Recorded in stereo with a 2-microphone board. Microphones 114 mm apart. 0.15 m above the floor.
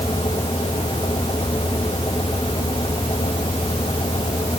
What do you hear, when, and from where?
Only background noise.